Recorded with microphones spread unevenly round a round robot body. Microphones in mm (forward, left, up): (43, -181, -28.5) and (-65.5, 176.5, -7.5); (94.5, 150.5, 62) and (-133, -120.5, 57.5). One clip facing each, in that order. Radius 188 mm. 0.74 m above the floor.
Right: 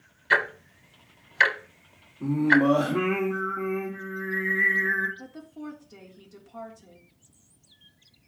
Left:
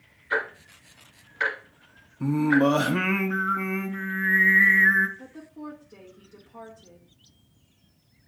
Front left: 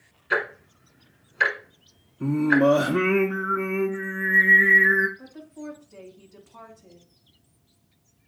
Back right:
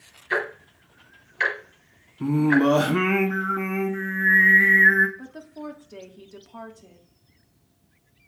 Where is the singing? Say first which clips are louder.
Left 1 dB, back right 1 dB; 155° left, 0.9 m.